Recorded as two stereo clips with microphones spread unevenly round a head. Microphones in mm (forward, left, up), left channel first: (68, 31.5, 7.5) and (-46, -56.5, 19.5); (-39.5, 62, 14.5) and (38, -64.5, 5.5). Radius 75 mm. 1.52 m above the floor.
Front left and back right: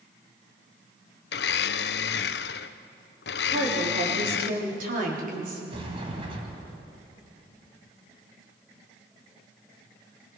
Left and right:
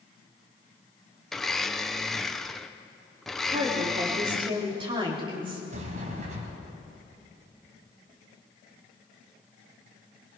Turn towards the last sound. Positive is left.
turn(degrees=-95)